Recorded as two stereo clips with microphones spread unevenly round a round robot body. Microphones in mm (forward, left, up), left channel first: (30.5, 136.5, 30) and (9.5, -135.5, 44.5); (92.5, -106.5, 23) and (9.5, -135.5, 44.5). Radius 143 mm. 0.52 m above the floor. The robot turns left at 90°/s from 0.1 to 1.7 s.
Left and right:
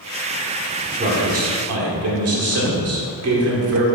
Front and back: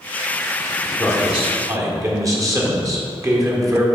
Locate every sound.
1.0 s a man speaking: 45° right, 1.7 m; by 3.9 s 105° right, 1.7 m